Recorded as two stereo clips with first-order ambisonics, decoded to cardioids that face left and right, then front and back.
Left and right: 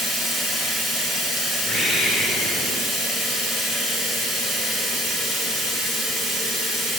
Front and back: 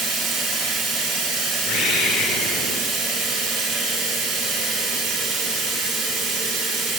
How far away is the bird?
About 3 m.